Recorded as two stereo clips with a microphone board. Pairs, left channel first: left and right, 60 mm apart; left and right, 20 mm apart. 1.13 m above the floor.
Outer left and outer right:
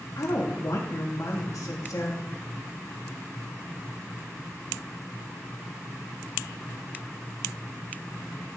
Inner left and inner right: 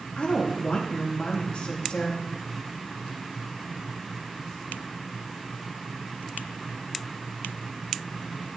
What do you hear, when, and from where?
0.2 s a woman speaking: 65° left (ahead or behind), 2.0 m